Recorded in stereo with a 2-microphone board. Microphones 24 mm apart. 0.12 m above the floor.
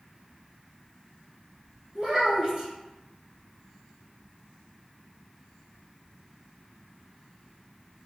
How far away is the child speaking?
About 1.3 m.